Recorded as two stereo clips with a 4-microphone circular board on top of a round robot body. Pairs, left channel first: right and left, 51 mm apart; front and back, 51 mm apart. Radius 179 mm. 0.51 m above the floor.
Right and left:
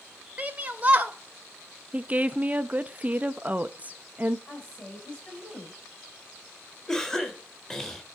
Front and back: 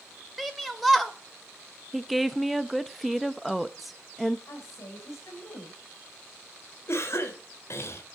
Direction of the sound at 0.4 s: 95° left.